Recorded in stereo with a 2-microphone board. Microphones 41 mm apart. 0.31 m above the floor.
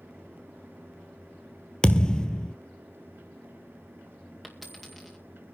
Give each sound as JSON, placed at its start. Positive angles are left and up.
{"t": 1.8, "sound": "a thud", "side_deg": 15, "distance_m": 0.7}
{"t": 4.4, "sound": "a dropped coin", "side_deg": -5, "distance_m": 2.0}